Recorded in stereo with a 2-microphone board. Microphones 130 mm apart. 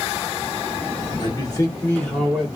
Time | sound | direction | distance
1.2 | a man speaking | 40° left (ahead or behind) | 1.2 m